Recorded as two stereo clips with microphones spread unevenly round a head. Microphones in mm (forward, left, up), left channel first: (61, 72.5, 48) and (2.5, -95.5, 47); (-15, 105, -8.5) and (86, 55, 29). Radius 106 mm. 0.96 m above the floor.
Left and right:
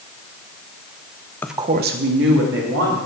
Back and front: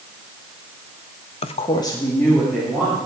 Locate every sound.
1.4 s a woman speaking: 150° left, 0.5 m; by 3.0 s 115° right, 2.5 m